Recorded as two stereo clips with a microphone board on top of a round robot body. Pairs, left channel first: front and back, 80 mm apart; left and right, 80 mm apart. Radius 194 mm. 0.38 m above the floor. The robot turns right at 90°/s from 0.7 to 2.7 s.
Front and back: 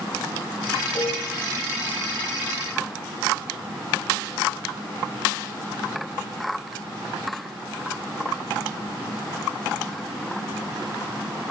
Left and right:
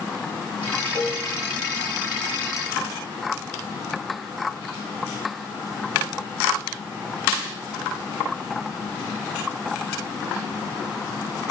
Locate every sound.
0.9 s dishes clattering: 35° right, 8.5 m; by 1.3 s 10° right, 8.5 m